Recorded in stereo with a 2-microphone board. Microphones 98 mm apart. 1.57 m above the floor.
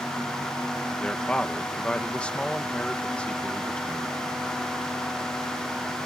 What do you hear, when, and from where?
1.0 s a man speaking: 10° left (ahead or behind)